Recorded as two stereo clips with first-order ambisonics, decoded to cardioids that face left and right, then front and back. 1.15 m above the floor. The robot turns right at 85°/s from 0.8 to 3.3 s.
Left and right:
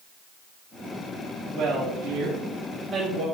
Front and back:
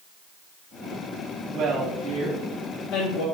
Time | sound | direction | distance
1.5 | a woman speaking | 140° right | 1.5 m